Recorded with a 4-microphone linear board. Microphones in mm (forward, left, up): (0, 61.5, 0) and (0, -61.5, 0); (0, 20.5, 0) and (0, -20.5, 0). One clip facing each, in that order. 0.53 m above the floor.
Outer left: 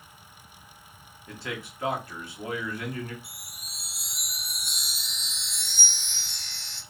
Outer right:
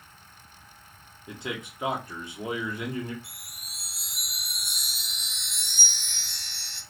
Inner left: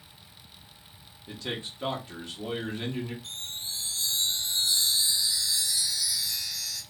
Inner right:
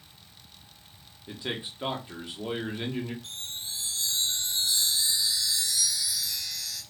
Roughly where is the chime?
Right.